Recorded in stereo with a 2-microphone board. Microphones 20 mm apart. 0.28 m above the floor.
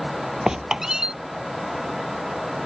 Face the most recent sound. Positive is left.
turn(degrees=-30)  # may be behind; listen again after turning